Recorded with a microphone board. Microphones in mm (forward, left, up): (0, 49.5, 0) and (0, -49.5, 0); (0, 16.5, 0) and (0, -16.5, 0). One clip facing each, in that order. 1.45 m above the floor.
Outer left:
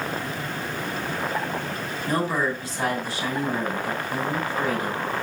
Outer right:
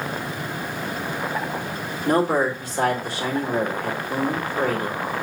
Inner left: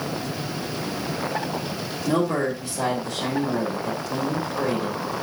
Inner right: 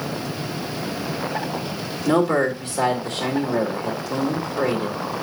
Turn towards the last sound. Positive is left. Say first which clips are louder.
# outer right 5 dB, inner right 4 dB
turn(degrees=-50)  # may be behind; listen again after turning